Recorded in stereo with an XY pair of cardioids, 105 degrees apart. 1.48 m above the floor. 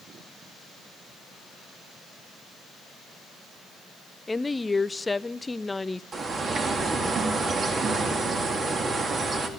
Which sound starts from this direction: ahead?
A woman speaking, at 4.3 s.